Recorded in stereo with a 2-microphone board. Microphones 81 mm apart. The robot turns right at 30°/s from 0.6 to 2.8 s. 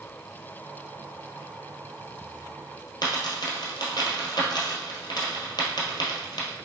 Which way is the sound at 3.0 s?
65° left (ahead or behind).